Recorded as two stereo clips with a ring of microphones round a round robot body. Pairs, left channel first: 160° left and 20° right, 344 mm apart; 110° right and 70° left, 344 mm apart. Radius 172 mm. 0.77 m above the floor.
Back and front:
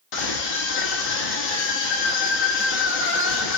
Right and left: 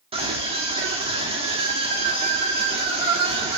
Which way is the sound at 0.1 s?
140° left.